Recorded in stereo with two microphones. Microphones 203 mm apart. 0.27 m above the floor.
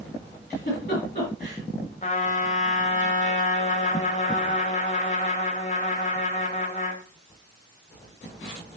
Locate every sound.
0.5 s a giggle: 40° left (ahead or behind), 3.5 m
2.0 s a trumpet: 35° left (ahead or behind), 0.9 m